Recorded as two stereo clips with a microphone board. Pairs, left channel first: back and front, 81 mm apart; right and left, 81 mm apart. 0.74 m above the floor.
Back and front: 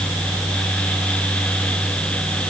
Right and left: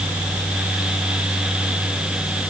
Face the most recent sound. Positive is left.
No sound to turn to.